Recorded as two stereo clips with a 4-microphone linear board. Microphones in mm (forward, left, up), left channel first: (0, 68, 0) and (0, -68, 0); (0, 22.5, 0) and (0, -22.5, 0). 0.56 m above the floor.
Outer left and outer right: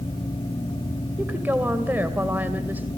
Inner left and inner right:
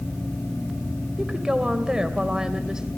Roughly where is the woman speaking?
Centre.